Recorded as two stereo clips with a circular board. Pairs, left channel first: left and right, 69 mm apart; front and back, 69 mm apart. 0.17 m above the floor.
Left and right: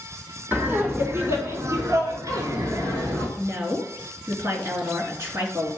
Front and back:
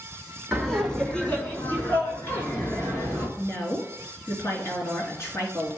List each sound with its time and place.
0.5 s laughter: 95° right, 1.1 m; by 3.3 s 50° right, 2.5 m
3.4 s a woman speaking: 45° right, 2.5 m